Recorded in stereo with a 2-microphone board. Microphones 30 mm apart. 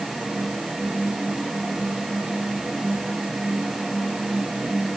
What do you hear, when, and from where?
Only background noise.